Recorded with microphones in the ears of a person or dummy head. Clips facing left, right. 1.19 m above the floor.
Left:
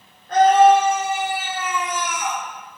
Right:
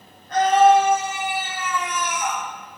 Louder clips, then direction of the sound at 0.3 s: Left 2 dB; 55° left (ahead or behind).